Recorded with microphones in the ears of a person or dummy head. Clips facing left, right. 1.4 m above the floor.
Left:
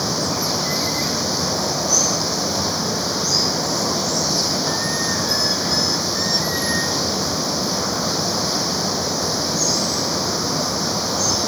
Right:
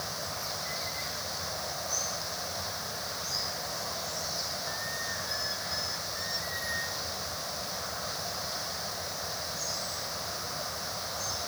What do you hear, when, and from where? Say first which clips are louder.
0.0 s running water: left 17 dB; 90° left